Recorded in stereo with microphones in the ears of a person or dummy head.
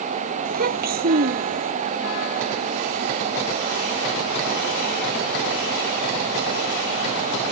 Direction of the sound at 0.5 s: 55° right (ahead or behind).